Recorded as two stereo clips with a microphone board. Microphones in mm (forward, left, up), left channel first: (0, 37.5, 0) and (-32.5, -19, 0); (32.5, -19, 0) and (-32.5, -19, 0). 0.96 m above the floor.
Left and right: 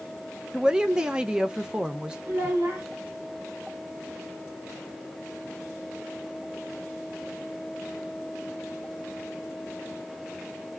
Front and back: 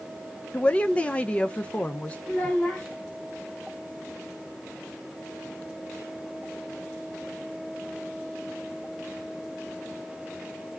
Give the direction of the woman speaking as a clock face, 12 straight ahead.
2 o'clock.